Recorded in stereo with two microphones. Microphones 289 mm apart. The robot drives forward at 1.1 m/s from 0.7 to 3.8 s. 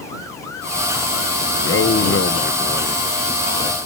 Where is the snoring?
No snoring in this recording.